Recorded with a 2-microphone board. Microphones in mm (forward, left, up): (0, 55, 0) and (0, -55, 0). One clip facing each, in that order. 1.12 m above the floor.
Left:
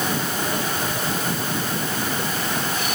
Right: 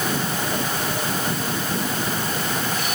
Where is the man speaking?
No man speaking in this recording.